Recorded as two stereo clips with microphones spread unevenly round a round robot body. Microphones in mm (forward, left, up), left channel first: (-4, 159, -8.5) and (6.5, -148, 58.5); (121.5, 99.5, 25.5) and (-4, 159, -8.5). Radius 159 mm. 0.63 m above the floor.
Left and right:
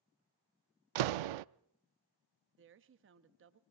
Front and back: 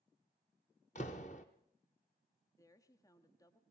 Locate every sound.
0.9 s a door slam: 95° right, 0.6 m
2.6 s a woman speaking: 100° right, 1.0 m